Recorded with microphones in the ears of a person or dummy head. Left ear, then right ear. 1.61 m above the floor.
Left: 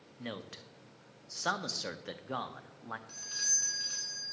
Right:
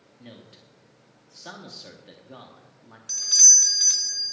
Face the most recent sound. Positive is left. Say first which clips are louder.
# right 18 dB
turn(degrees=-50)  # may be behind; listen again after turning